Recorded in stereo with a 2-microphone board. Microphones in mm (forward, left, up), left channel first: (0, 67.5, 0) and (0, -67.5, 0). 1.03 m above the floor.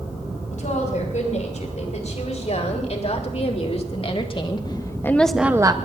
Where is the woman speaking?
65° left (ahead or behind), 8 m; by 5.8 s 35° right (ahead or behind), 1.2 m.